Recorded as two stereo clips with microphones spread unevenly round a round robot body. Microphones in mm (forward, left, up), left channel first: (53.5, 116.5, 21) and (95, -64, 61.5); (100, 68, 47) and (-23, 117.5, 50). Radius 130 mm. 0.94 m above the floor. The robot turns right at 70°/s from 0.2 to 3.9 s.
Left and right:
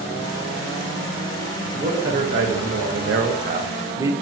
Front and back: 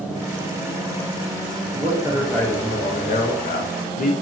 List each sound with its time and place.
1.7 s a man speaking: 150° right, 0.6 m; by 4.1 s straight ahead, 0.6 m